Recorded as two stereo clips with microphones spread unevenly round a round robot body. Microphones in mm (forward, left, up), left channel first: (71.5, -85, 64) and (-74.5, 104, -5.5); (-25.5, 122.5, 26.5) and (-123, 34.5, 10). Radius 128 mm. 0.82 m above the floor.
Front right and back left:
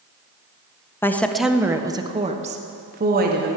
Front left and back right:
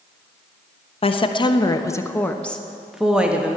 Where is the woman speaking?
45° left, 1.0 m; by 3.6 s 150° left, 1.5 m.